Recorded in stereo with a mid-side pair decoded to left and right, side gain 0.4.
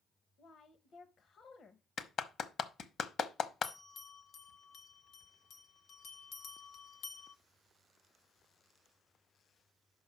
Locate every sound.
0.4 s a woman speaking: 60° left, 0.8 m
2.0 s a clap: 60° left, 0.9 m
3.6 s a bell: 70° left, 0.9 m